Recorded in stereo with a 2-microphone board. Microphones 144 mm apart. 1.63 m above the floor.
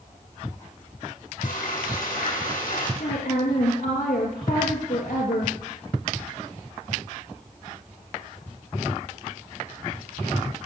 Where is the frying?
85° left, 8 m.